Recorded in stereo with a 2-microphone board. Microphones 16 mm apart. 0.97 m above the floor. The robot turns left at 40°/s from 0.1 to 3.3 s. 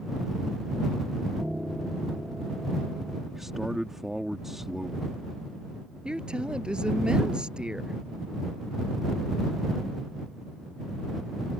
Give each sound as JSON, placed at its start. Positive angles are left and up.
{"t": 1.4, "sound": "a piano", "azimuth_deg": -135}
{"t": 3.3, "sound": "a man speaking", "side_deg": -30}
{"t": 6.0, "sound": "a woman speaking", "side_deg": -75}